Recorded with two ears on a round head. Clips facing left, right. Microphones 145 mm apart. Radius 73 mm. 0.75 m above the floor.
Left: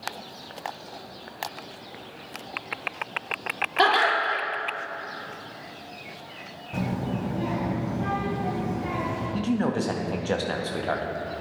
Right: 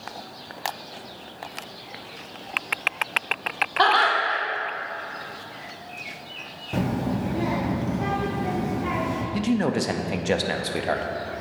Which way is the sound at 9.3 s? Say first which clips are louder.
Right 2 dB; 15° right (ahead or behind).